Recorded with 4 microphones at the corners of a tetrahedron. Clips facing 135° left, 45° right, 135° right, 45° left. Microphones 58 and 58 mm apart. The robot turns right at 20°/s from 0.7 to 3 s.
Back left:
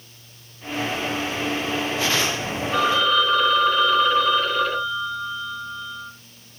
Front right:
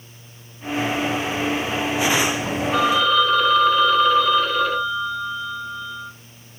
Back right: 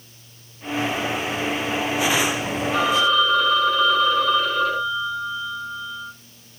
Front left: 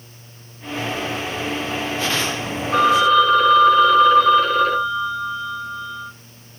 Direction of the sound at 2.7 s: 40° left.